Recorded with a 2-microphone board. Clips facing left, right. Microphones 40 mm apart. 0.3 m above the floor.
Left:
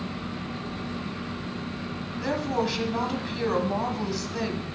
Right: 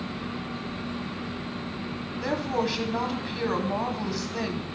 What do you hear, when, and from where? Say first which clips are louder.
2.2 s a woman speaking: even; 5° right (ahead or behind), 1.5 m